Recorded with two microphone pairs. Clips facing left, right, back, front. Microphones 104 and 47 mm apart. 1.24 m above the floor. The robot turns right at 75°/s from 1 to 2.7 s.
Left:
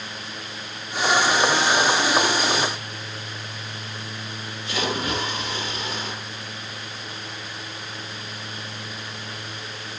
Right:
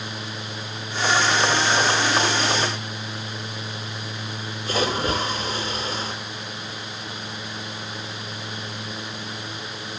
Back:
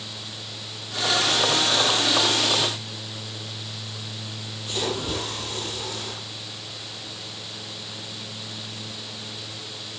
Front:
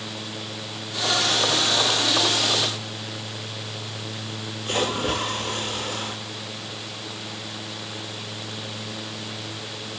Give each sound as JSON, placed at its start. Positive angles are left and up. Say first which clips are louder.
{"t": 4.7, "sound": "a splash", "louder": "right 3 dB, front 4 dB", "azimuth_deg": -40, "distance_m": 9.5}